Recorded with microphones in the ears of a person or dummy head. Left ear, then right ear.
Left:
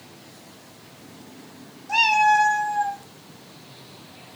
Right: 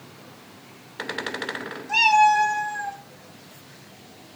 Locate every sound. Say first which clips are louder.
1.9 s a cat meowing: right 1 dB; 5° right (ahead or behind), 0.9 m; by 3.0 s 40° right (ahead or behind), 1.0 m